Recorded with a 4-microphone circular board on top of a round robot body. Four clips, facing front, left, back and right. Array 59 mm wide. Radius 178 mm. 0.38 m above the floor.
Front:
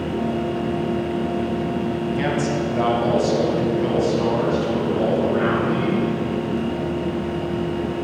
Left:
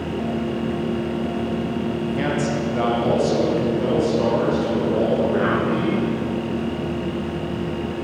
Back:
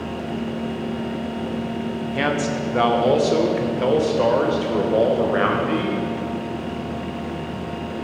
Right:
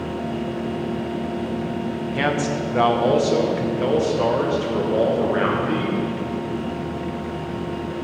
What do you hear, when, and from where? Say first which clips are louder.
2.1 s a man speaking: right 3 dB, back 2 dB; 135° right, 1.8 m; by 6.0 s 160° right, 3.5 m